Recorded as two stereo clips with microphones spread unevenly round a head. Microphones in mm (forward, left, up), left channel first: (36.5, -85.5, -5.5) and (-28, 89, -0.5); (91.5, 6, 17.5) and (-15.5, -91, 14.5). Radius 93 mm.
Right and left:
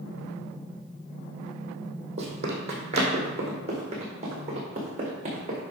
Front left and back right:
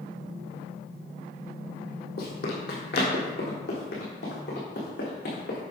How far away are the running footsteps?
About 2.5 m.